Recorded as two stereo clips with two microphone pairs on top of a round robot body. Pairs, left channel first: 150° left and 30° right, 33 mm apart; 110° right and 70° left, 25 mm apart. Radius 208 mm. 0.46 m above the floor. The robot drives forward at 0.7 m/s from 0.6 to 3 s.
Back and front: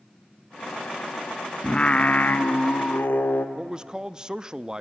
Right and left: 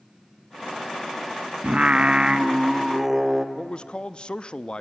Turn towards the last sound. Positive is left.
turn(degrees=-90)